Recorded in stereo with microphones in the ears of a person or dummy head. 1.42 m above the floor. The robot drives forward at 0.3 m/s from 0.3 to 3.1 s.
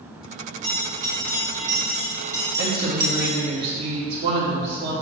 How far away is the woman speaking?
About 1.3 m.